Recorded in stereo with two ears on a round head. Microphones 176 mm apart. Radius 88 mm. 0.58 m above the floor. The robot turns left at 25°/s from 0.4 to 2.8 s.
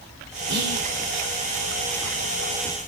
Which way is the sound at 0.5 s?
55° right (ahead or behind).